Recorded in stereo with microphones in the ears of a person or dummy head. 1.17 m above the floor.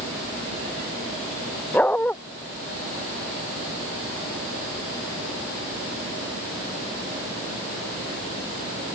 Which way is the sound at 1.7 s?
5° left (ahead or behind).